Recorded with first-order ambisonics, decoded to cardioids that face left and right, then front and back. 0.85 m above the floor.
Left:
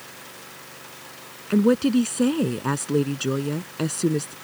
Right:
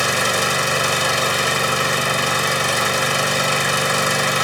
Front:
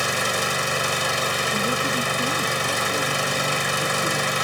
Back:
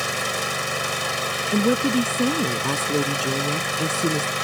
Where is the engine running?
80° right.